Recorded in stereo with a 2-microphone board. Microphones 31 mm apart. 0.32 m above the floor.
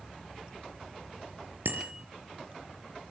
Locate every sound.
1.6 s a bicycle bell: 80° right, 4.5 m